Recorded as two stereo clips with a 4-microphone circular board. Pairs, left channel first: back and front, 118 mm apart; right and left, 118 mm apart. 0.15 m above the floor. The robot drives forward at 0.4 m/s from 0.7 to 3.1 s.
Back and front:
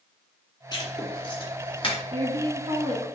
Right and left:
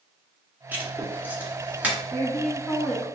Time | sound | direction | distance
0.7 | writing | 155° left | 2 m
2.1 | a woman speaking | 20° right | 2.0 m